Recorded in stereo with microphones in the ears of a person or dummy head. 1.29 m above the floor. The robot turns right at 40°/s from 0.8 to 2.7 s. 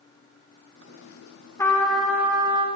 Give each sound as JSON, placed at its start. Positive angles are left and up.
{"t": 1.6, "sound": "a trumpet", "azimuth_deg": 165, "distance_m": 0.8}